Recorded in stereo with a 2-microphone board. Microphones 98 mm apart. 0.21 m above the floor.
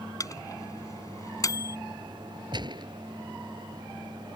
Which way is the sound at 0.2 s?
35° left (ahead or behind).